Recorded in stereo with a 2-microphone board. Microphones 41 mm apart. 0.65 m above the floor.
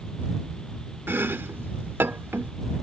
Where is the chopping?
70° right (ahead or behind).